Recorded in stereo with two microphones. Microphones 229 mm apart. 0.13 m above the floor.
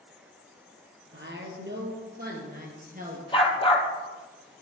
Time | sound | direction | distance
1.1 | a woman speaking | 55° right (ahead or behind) | 3 m
3.3 | a dog barking | 20° left (ahead or behind) | 1.7 m